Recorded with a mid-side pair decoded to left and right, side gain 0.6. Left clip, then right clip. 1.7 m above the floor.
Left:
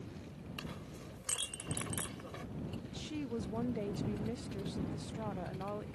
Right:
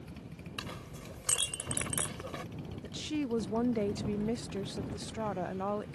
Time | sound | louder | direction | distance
0.6 | a clink | right 5 dB | 35° right | ?
2.8 | a woman speaking | right 10 dB | 35° right | ?